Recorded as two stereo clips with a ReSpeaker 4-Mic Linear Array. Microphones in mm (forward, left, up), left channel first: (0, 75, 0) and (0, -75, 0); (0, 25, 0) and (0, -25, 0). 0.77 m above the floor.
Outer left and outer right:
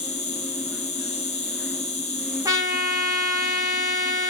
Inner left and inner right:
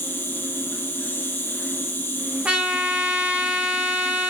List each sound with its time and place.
0.0 s an insect: 45° left (ahead or behind), 1.4 m
2.5 s a trumpet: 20° right (ahead or behind), 1.4 m